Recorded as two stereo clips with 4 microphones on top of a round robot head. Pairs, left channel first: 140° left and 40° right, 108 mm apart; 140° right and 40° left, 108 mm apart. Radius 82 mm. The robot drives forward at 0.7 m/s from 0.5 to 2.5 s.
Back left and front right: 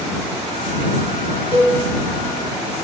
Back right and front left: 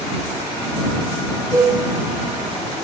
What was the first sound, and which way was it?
A cowbell, 20° right.